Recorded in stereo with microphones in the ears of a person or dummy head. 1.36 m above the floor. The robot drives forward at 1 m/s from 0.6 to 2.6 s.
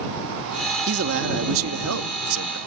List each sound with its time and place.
0.9 s a man speaking: 60° right (ahead or behind); by 2.6 s 75° right (ahead or behind)